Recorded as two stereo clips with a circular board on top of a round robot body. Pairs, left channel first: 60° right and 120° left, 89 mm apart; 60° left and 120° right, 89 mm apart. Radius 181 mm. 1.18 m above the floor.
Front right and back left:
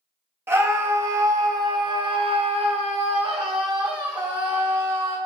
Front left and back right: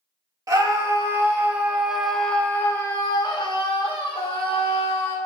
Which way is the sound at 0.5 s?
175° right.